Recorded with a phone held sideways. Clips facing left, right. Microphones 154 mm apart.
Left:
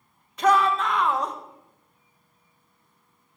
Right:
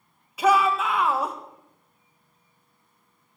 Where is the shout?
10° right (ahead or behind), 1.8 m.